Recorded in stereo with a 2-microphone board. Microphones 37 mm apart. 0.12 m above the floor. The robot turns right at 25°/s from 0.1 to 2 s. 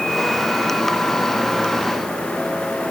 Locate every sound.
Only background noise.